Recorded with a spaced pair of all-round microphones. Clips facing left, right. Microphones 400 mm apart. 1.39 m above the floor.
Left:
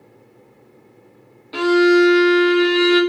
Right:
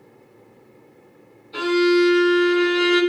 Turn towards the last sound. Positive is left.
turn(degrees=80)